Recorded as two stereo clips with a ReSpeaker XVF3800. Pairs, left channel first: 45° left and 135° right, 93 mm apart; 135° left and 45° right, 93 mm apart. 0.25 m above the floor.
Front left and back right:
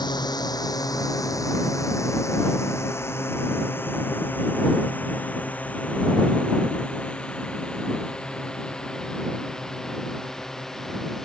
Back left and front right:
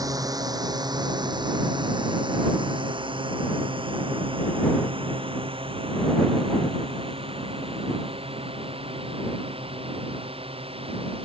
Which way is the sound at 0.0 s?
5° left.